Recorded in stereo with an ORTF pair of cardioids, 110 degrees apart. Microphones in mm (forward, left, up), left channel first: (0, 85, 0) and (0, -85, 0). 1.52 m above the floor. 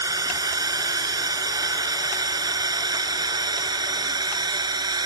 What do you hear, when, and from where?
0.0 s a drone: 20° right; by 5.1 s 25° right